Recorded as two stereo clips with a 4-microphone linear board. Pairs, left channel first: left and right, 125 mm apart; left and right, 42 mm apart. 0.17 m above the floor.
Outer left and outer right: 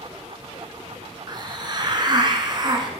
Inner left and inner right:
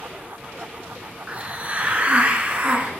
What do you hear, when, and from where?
1.3 s a hiss: 35° right (ahead or behind), 1.1 m